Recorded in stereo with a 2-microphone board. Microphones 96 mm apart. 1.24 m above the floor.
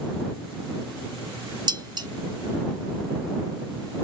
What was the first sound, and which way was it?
Dishes clattering, 45° right (ahead or behind).